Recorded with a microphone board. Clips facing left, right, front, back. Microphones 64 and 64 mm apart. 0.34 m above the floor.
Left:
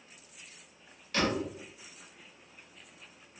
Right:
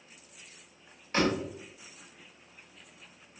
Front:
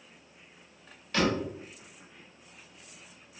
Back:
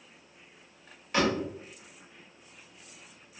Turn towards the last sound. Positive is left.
turn(degrees=-120)